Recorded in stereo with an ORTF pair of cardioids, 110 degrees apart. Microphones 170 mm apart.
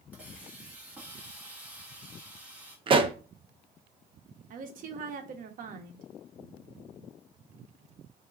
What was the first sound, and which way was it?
A hiss, 10° right.